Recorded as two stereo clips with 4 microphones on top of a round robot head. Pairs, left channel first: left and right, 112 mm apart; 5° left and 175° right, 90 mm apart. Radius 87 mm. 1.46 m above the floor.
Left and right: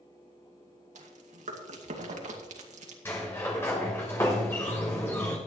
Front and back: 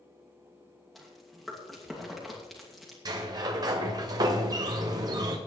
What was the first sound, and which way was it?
Chewing, 85° right.